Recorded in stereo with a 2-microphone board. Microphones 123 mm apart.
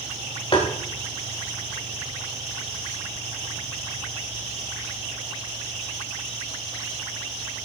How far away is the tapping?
About 4.5 m.